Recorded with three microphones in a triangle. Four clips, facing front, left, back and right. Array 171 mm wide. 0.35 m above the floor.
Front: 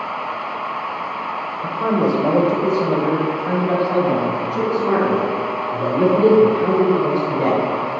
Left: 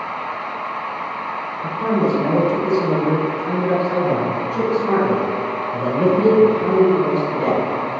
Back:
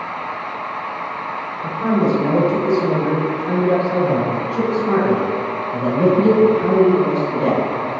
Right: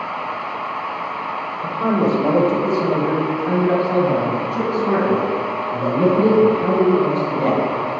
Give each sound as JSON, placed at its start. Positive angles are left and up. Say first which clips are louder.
{"t": 1.6, "sound": "a man speaking", "louder": "right 1 dB, back 1 dB", "azimuth_deg": -55, "distance_m": 1.1}